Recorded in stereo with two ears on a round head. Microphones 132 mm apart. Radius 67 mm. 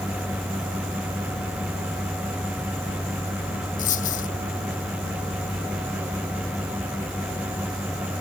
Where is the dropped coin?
60° left (ahead or behind).